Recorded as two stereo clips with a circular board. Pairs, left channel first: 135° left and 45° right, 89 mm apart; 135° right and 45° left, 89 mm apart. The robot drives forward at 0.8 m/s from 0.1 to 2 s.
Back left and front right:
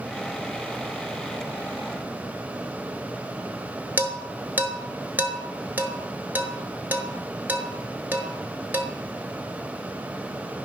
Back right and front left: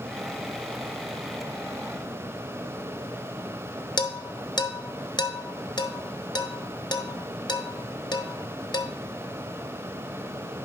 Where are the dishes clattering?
115° right, 1.1 m.